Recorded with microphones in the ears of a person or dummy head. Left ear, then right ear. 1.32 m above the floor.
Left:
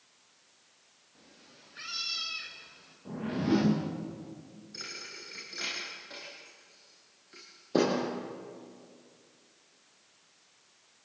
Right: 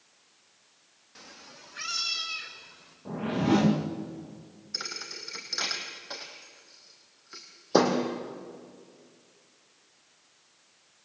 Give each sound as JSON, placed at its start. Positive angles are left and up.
{"t": 1.1, "sound": "a cat meowing", "side_deg": -55, "distance_m": 1.0}
{"t": 3.0, "sound": "a whoosh", "side_deg": -30, "distance_m": 1.4}
{"t": 4.7, "sound": "a thud", "side_deg": -45, "distance_m": 3.0}